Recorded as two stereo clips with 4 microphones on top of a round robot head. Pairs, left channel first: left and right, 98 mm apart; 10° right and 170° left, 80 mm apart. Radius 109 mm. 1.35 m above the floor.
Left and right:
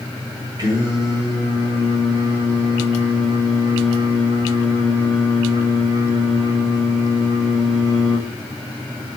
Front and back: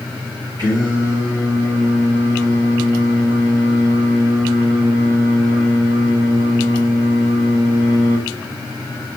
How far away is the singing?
About 2 m.